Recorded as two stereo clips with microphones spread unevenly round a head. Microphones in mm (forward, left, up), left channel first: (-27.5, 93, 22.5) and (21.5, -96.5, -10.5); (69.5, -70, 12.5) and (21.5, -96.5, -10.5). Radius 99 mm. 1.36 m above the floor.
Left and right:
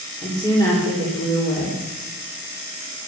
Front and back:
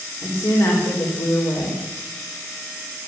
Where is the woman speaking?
35° left, 4 m.